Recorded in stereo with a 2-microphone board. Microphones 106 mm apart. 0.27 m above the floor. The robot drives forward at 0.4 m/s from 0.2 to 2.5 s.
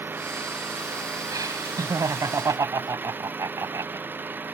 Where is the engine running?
20° right (ahead or behind).